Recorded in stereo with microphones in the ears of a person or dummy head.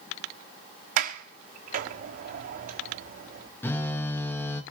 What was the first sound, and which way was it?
A sliding door, 50° right (ahead or behind).